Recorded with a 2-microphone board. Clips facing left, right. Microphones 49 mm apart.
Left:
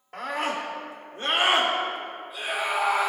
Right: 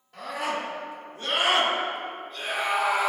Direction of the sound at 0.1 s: 60° left (ahead or behind).